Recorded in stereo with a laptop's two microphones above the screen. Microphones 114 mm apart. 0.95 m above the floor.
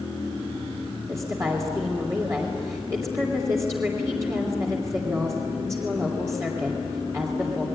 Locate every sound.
1.1 s a woman speaking: 30° right (ahead or behind), 3 m